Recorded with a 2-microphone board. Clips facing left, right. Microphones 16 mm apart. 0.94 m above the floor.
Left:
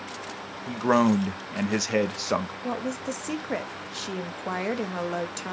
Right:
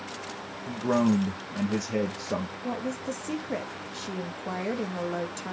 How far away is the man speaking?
About 0.8 m.